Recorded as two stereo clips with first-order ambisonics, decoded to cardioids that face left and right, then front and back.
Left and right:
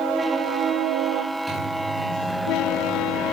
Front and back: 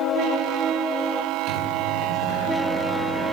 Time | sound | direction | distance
1.5 | a microwave | 175° right | 3.5 m